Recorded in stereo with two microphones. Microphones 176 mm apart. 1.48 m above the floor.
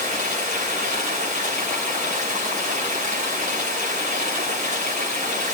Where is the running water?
45° right (ahead or behind), 4.5 m.